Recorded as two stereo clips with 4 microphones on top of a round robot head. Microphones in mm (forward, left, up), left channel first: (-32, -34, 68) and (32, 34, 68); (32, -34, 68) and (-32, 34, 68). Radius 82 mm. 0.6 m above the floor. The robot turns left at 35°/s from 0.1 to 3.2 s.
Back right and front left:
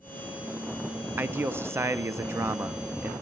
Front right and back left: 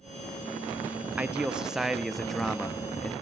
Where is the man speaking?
75° left, 0.5 m; by 3.1 s 10° left, 0.5 m.